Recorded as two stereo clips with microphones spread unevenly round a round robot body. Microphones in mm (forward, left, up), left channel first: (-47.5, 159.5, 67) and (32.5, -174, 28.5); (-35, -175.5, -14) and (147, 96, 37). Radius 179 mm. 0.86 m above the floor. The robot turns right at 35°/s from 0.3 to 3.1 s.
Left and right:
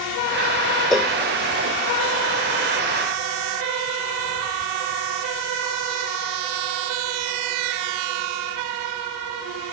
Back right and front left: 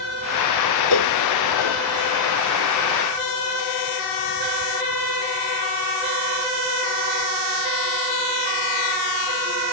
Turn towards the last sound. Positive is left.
turn(degrees=-90)